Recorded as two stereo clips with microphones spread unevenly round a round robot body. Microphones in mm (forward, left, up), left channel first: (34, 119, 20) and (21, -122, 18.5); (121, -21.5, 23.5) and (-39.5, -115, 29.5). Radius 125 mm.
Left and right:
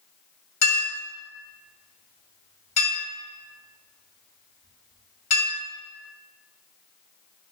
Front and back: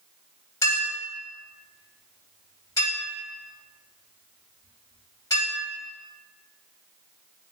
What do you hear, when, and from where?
0.6 s a clink: 105° left, 1.7 m